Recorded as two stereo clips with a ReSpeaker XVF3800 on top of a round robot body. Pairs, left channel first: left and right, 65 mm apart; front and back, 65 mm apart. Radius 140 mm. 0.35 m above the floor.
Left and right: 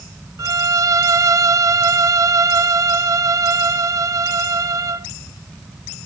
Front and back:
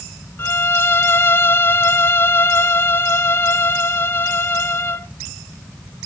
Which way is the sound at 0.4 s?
55° right.